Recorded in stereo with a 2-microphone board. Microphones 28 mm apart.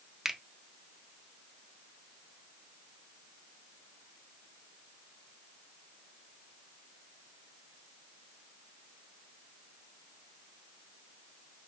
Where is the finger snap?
15° right (ahead or behind), 0.7 m.